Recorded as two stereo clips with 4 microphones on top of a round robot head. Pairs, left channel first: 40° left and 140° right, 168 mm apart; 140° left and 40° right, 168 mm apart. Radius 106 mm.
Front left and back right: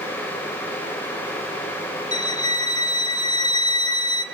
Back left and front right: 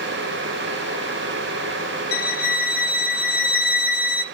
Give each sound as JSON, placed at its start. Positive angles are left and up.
{"t": 2.1, "sound": "a violin", "azimuth_deg": 105, "distance_m": 1.0}